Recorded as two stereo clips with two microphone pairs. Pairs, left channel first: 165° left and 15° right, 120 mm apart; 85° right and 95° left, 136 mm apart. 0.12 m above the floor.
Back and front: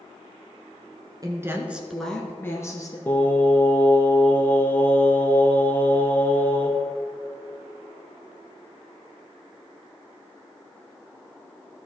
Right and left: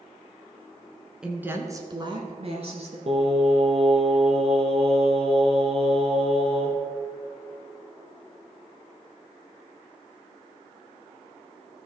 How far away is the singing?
About 1.2 m.